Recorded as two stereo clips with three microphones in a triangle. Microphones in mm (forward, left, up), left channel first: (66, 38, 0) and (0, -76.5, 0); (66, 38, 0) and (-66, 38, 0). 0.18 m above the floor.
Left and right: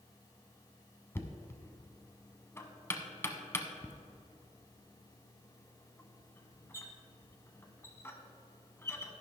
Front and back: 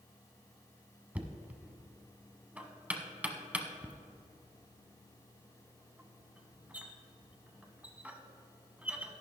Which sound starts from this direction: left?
Knocking, at 1.1 s.